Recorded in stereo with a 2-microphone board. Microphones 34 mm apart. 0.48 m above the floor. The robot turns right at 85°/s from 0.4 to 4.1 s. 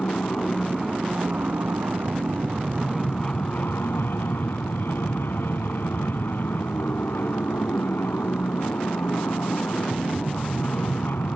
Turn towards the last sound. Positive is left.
turn(degrees=100)